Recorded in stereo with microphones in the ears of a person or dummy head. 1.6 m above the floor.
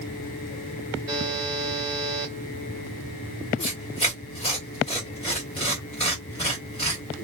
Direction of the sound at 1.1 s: 25° right (ahead or behind).